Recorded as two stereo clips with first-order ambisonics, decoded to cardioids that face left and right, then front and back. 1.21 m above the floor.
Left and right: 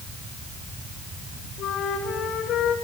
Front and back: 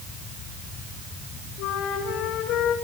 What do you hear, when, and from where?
1.6 s a flute: 35° left, 2.5 m